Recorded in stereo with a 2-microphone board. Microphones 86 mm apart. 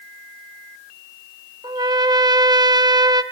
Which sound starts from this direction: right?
A trumpet, at 1.6 s.